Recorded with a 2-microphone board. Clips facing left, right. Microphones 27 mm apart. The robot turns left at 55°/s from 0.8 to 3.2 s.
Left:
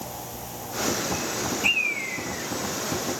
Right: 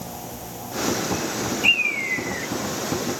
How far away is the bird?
About 1.4 m.